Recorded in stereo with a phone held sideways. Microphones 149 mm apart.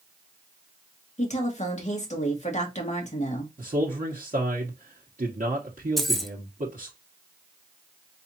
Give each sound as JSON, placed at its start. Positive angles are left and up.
{"t": 1.2, "sound": "a woman speaking", "side_deg": 55, "distance_m": 1.4}
{"t": 3.6, "sound": "a man speaking", "side_deg": -65, "distance_m": 1.0}
{"t": 6.0, "sound": "keys jangling", "side_deg": 0, "distance_m": 0.5}